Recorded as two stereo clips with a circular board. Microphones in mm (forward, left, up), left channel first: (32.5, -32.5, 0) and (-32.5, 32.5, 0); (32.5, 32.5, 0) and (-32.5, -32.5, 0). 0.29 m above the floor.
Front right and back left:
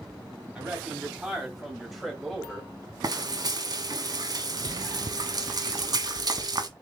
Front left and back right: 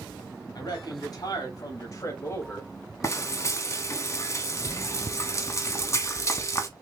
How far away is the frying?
About 0.8 m.